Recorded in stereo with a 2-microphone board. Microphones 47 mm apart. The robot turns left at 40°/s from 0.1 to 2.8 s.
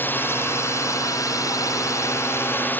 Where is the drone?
145° left; by 2.8 s 35° left.